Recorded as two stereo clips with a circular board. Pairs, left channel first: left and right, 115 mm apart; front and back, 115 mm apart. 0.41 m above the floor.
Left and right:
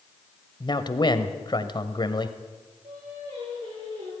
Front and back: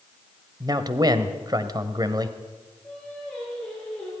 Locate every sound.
0.6 s a man speaking: 130° left, 1.6 m
2.8 s singing: 80° right, 10 m